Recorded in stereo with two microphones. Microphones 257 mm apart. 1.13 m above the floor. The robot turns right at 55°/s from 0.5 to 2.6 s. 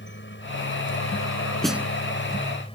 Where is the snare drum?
5° left (ahead or behind); by 1.9 s 10° right (ahead or behind).